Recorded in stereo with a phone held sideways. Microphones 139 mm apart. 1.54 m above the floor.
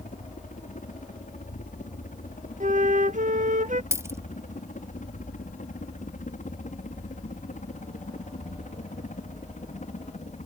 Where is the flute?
65° right (ahead or behind).